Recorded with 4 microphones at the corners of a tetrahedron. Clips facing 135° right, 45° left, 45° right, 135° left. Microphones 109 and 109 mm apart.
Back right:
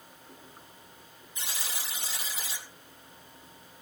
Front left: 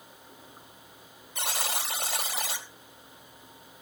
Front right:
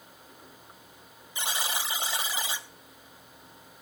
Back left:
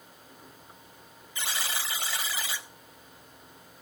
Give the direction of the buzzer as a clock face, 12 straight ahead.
11 o'clock.